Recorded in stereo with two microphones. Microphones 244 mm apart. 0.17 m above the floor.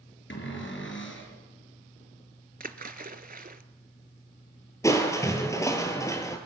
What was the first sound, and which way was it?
A cupboard door, 55° left (ahead or behind).